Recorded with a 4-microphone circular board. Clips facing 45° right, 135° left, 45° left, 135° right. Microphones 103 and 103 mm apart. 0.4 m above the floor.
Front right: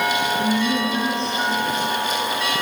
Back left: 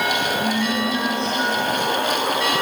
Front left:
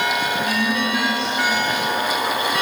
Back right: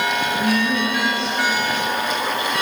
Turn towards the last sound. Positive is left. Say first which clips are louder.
# front right 1 dB, back right 2 dB
turn(degrees=-100)